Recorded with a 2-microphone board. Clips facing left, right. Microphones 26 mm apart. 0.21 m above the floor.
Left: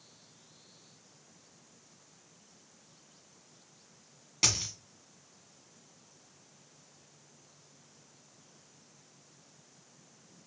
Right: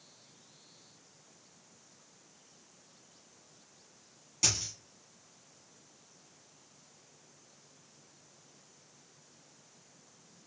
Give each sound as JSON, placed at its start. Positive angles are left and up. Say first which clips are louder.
{"t": 4.4, "sound": "a dropped coin", "louder": "left 2 dB", "side_deg": 45, "distance_m": 0.8}